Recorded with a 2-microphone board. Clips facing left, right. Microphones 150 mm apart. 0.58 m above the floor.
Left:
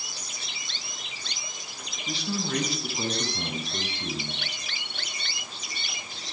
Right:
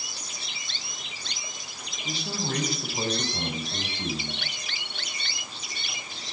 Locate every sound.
2.0 s a man speaking: 45° right (ahead or behind), 3.5 m; by 4.7 s 55° right (ahead or behind), 7 m